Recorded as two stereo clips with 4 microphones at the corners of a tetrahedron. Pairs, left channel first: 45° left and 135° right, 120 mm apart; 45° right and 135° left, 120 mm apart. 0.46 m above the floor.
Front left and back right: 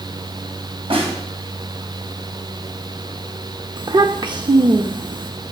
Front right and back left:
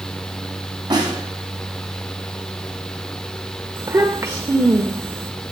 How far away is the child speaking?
About 0.7 m.